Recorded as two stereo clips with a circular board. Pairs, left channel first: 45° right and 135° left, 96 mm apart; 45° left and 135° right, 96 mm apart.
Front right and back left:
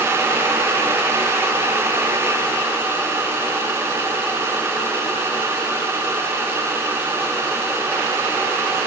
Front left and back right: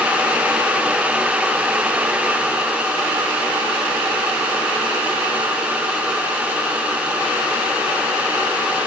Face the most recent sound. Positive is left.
No sound to turn to.